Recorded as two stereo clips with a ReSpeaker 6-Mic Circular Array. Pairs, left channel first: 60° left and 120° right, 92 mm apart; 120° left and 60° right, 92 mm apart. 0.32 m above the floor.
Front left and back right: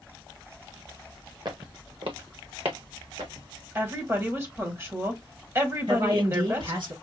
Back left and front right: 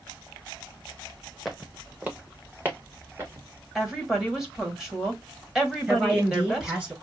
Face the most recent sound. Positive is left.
turn(degrees=-130)